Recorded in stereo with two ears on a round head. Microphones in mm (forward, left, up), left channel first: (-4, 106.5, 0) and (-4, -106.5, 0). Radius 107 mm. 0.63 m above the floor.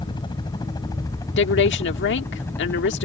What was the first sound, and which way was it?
A helicopter, 20° left (ahead or behind).